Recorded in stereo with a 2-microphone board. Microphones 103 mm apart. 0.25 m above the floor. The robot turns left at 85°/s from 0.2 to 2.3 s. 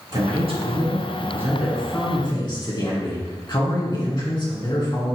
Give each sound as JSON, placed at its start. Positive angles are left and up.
{"t": 0.1, "sound": "a man speaking", "azimuth_deg": -55, "distance_m": 2.5}